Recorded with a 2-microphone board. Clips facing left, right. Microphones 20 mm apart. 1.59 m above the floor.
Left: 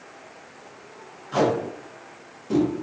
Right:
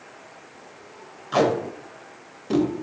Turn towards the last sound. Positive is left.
turn(degrees=-55)  # may be behind; listen again after turning